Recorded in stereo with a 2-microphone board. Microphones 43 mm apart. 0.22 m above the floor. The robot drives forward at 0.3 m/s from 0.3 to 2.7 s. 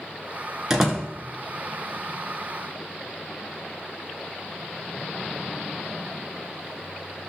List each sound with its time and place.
0.7 s a door slam: 10° right (ahead or behind), 1.9 m